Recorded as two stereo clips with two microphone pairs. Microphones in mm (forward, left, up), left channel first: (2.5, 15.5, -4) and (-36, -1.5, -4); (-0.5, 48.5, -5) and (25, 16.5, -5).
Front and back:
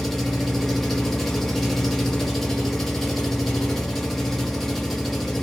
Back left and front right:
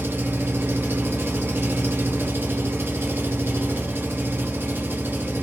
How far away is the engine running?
About 0.8 m.